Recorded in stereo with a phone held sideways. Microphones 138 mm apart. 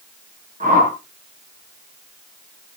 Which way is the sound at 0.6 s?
80° right.